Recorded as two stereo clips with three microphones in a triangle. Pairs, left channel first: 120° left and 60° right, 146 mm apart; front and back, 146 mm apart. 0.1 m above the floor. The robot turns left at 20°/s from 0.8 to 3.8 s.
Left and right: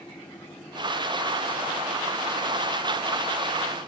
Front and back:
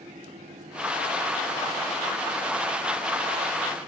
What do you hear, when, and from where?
Only background noise.